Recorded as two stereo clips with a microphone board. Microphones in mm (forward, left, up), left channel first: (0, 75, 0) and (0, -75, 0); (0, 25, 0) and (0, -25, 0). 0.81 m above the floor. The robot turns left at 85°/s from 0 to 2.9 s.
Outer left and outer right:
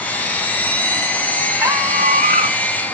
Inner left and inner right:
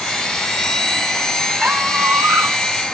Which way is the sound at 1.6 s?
15° right.